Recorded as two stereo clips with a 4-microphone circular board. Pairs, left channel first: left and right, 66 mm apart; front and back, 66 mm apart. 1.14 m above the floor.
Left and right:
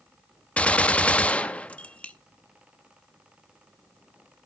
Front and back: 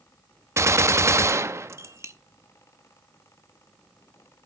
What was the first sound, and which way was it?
A gunshot, 155° left.